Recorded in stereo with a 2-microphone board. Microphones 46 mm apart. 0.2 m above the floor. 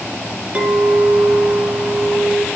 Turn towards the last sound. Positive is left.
turn(degrees=-30)  # may be behind; listen again after turning